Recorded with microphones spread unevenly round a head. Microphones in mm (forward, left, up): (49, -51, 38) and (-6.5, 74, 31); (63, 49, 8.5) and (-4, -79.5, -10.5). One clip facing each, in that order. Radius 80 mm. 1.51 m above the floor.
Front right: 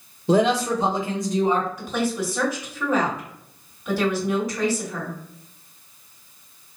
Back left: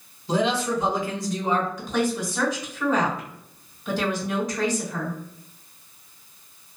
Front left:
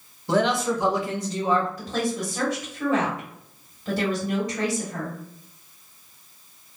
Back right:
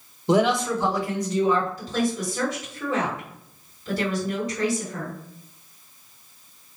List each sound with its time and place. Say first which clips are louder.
0.3 s a man speaking: front right 4 dB, back right 2 dB; 45° right, 0.5 m; by 1.7 s 10° left, 1.4 m
1.8 s a woman speaking: even, back right 1 dB; 20° left, 1.7 m